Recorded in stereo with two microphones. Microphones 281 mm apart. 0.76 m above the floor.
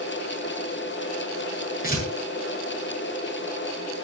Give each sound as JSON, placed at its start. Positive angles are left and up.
{"t": 1.8, "sound": "tearing paper", "side_deg": 30, "distance_m": 8.0}